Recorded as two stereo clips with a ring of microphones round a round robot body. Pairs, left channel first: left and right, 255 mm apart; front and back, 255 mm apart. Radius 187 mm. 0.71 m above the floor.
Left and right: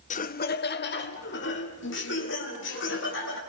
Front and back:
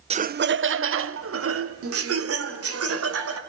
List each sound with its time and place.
0.1 s laughter: 125° left, 0.5 m; by 3.4 s 145° left, 3 m